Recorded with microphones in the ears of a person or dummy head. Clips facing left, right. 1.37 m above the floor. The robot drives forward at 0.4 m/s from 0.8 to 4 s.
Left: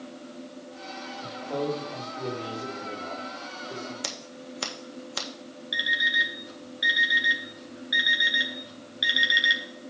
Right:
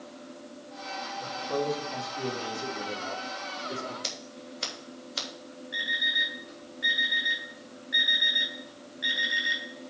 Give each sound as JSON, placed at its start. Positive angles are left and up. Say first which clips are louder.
{"t": 1.2, "sound": "a man speaking", "louder": "even", "side_deg": -5, "distance_m": 2.5}
{"t": 4.0, "sound": "scissors", "louder": "left 2 dB", "side_deg": 65, "distance_m": 1.6}
{"t": 5.7, "sound": "an alarm clock", "louder": "left 4 dB", "side_deg": 40, "distance_m": 4.0}